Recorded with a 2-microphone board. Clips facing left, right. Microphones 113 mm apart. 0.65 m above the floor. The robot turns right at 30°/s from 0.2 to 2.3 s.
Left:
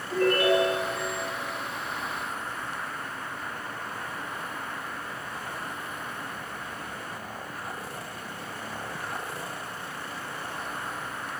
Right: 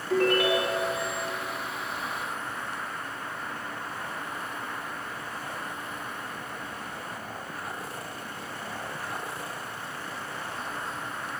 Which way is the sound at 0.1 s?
80° right.